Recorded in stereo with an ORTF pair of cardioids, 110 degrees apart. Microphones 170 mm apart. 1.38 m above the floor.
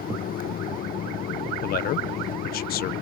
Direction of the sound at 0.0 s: 60° left.